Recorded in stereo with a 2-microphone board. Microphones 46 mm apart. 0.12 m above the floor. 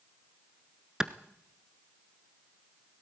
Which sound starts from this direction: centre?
A clap, at 1.0 s.